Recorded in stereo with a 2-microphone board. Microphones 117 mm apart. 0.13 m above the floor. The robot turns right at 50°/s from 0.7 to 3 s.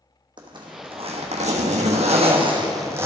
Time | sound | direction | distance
0.4 | a zipper | 135° right | 1.3 m